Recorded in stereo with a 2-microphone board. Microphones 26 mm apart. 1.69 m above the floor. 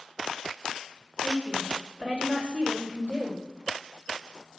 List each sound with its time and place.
1.2 s a woman speaking: 65° right (ahead or behind), 4.5 m